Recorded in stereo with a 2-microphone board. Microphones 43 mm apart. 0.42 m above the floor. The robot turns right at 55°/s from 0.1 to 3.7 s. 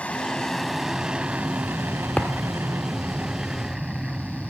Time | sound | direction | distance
0.0 | an aircraft | 150° left | ?
2.2 | a thud | 20° left (ahead or behind) | ?